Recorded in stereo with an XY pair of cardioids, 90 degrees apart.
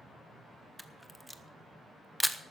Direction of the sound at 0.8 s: Straight ahead.